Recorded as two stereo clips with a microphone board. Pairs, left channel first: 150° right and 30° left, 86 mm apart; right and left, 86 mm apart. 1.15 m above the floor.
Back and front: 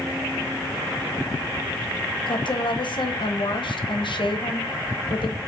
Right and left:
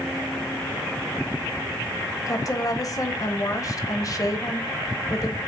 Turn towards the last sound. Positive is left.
turn(degrees=-135)